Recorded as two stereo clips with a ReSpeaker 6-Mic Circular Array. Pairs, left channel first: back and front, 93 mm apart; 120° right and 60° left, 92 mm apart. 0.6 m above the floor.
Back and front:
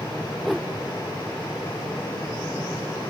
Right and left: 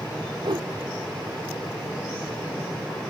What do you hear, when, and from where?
0.4 s a whoosh: 90° left